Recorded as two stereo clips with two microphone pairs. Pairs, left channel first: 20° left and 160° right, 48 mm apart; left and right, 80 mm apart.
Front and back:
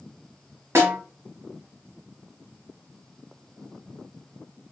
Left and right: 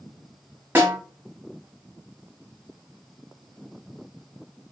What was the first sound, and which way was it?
A snare drum, 155° right.